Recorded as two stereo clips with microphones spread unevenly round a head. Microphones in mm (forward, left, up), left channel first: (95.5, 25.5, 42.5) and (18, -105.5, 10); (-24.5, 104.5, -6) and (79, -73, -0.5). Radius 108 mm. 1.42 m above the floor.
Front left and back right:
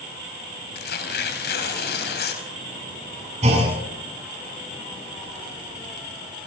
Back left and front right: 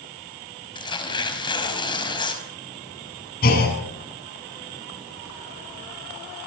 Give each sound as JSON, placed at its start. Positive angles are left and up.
{"t": 0.8, "sound": "tearing paper", "azimuth_deg": 50, "distance_m": 5.0}
{"t": 3.4, "sound": "a clunk", "azimuth_deg": 175, "distance_m": 7.0}